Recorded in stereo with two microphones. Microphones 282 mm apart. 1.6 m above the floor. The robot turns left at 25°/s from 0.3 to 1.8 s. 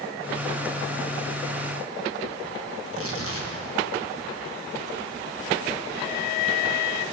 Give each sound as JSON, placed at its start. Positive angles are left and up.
{"t": 2.8, "sound": "tearing paper", "side_deg": -55, "distance_m": 1.6}